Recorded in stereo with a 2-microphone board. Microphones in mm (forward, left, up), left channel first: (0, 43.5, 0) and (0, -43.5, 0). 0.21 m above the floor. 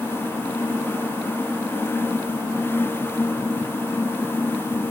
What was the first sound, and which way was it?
Only background noise.